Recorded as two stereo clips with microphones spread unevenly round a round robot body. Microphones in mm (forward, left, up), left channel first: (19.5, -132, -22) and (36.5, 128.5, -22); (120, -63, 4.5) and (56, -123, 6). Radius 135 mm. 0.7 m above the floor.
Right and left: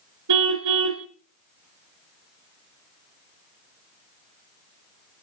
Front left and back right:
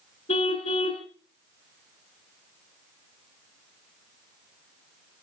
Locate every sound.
0.3 s a car horn: 70° left, 2.5 m